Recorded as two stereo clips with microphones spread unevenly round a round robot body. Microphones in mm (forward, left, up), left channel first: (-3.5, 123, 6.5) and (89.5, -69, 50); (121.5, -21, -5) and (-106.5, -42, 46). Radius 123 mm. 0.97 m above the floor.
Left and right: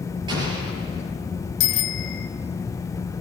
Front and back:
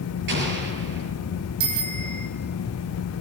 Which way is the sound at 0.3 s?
135° right.